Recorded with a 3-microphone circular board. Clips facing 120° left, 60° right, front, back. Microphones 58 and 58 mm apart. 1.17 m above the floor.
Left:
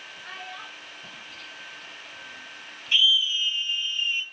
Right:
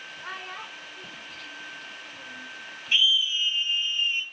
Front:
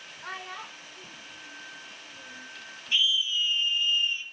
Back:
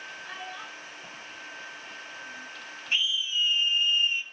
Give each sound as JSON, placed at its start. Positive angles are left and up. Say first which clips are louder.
{"t": 0.2, "sound": "a child speaking", "louder": "right 2 dB, front 4 dB", "azimuth_deg": -25, "distance_m": 2.0}
{"t": 2.9, "sound": "a scream", "louder": "left 1 dB, front 2 dB", "azimuth_deg": -130, "distance_m": 3.0}